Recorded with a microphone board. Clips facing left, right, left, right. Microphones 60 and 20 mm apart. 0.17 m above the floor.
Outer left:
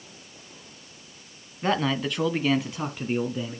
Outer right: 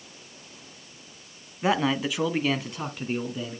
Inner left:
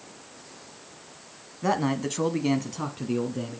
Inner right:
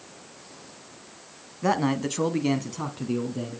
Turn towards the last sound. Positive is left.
turn(degrees=5)  # may be behind; listen again after turning